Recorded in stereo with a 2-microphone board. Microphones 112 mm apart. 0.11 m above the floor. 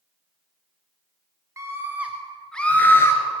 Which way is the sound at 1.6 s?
30° right (ahead or behind).